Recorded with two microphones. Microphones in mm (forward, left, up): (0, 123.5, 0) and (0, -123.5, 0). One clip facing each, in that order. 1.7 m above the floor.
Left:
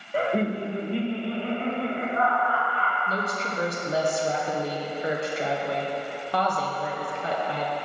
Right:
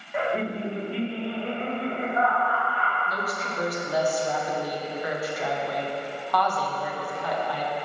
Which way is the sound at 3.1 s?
25° left (ahead or behind).